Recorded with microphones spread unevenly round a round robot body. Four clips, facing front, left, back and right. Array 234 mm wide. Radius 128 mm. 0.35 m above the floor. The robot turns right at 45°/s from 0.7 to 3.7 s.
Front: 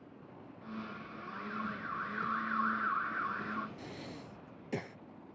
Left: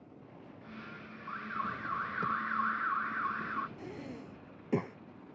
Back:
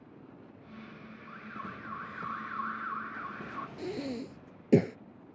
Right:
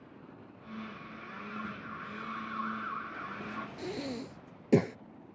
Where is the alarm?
50° left; by 3.7 s 155° left.